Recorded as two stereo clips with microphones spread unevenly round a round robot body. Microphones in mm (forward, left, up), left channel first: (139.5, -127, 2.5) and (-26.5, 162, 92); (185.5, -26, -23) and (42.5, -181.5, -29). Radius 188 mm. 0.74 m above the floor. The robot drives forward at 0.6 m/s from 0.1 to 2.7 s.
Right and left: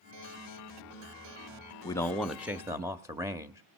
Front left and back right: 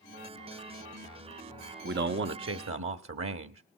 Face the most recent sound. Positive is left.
turn(degrees=-150)